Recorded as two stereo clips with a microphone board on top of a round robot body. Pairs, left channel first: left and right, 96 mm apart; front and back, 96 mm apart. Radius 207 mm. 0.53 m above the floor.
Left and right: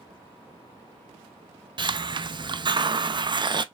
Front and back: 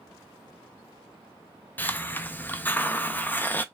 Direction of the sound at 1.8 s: 65° right.